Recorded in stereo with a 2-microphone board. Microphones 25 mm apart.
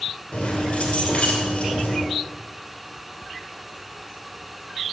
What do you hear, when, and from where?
0.3 s keys jangling: 50° left (ahead or behind), 2.5 m